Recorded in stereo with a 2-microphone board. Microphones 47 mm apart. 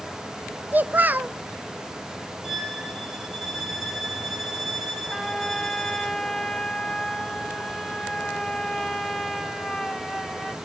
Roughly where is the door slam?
No door slam in this recording.